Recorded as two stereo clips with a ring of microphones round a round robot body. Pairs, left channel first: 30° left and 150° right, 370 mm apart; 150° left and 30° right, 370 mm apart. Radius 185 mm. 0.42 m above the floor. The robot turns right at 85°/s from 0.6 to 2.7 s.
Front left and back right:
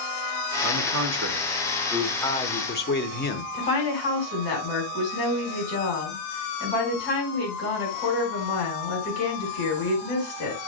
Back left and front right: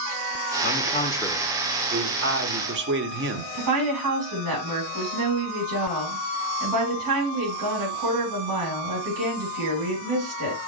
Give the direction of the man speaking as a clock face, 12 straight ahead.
6 o'clock.